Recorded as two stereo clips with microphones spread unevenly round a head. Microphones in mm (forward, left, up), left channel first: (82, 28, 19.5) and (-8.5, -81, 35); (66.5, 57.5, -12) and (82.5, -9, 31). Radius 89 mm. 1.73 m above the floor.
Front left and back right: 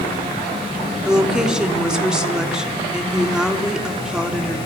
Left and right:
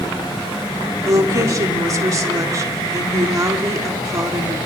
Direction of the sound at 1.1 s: 45° right.